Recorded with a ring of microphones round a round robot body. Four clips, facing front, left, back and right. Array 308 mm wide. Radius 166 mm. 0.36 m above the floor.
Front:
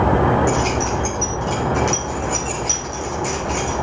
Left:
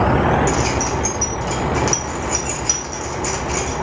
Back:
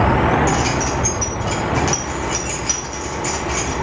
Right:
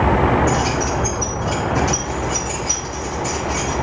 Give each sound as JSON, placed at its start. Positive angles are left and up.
{"t": 0.5, "sound": "keys jangling", "azimuth_deg": 105, "distance_m": 3.0}